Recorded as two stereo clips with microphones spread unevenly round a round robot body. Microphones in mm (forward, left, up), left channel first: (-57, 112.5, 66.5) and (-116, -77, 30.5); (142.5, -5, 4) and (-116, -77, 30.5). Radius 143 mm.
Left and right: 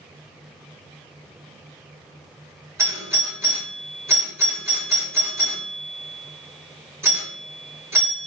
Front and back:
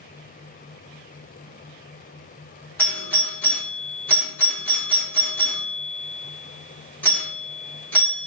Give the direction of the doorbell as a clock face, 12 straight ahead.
2 o'clock.